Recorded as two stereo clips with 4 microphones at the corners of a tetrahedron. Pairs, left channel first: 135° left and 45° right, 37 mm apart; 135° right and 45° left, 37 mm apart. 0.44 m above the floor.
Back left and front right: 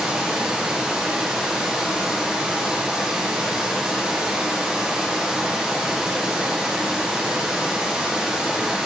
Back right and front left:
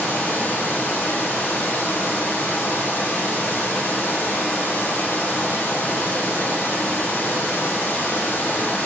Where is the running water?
120° right, 4.5 m.